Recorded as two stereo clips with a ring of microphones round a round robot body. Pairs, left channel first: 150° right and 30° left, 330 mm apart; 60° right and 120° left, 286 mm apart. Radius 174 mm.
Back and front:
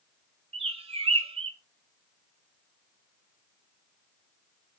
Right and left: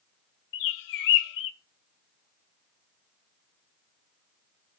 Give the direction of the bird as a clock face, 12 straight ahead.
1 o'clock.